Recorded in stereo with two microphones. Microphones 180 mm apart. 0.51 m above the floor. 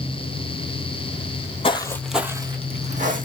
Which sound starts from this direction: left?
Footsteps, at 1.6 s.